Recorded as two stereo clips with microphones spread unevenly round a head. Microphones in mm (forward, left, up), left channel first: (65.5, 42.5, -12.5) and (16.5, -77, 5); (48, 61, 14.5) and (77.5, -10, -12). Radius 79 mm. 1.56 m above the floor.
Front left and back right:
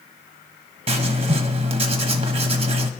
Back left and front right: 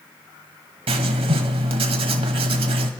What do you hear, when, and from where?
0.9 s writing: 80° right, 1.2 m